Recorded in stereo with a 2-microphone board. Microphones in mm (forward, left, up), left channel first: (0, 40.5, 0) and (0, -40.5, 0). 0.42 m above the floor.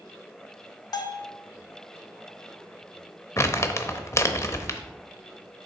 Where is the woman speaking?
I don't hear a woman speaking.